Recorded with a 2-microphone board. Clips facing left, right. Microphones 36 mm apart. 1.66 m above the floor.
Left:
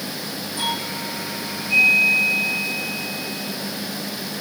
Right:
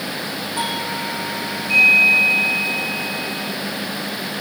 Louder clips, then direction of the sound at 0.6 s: Right 1 dB; 80° right.